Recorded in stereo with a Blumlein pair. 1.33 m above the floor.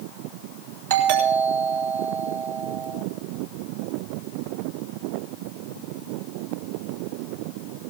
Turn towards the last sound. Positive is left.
turn(degrees=-60)